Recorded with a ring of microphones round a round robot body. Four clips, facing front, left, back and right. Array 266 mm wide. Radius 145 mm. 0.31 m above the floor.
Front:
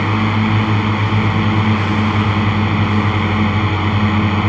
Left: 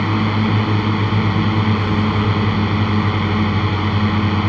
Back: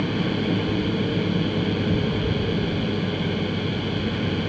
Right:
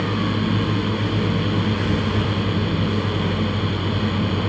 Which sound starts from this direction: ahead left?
A drone, at 0.0 s.